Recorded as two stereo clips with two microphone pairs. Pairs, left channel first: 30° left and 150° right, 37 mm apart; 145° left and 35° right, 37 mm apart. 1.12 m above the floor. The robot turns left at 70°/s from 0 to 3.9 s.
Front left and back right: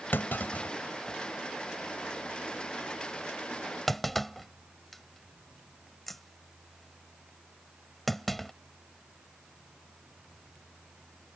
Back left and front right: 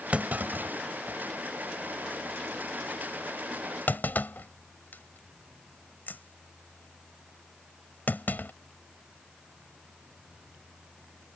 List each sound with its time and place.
0.1 s a clunk: 20° left; by 8.5 s 115° left